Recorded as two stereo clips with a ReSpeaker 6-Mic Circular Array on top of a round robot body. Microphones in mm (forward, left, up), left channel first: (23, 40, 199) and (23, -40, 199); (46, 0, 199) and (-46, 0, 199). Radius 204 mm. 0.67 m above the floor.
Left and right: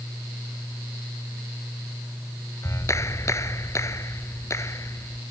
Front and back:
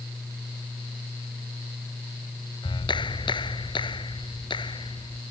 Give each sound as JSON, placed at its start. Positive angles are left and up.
{"t": 2.6, "sound": "a clap", "azimuth_deg": 35}